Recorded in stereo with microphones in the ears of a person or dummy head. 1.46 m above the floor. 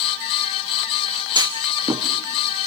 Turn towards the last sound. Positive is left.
turn(degrees=-20)  # may be behind; listen again after turning